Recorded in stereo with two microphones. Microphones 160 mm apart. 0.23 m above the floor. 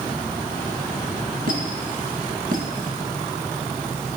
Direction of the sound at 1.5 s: 70° right (ahead or behind).